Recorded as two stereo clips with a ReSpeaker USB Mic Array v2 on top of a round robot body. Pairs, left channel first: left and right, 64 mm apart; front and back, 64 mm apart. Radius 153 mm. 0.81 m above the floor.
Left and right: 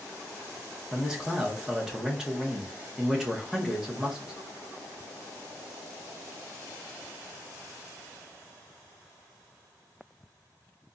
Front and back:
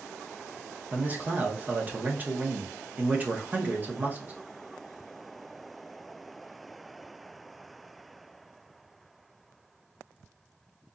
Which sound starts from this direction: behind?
A man speaking, at 0.9 s.